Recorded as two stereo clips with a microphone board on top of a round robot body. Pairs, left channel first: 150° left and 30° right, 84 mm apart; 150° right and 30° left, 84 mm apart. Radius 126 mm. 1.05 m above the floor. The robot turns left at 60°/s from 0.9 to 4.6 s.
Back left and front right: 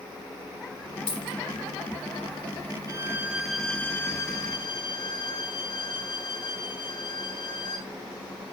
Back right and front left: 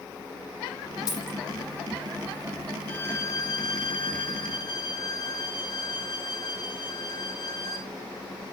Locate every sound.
1.1 s a dropped coin: 160° left, 7.5 m; by 1.4 s 140° left, 7.5 m
2.9 s a violin: 75° right, 4.5 m; by 7.9 s straight behind, 4.5 m